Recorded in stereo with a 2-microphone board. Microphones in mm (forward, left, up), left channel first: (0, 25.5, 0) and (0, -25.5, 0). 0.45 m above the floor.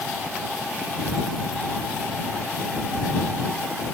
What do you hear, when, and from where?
Only background noise.